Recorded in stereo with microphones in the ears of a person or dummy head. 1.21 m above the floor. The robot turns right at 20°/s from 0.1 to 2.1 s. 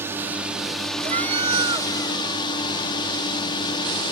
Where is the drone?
10° right; by 4.1 s 30° left.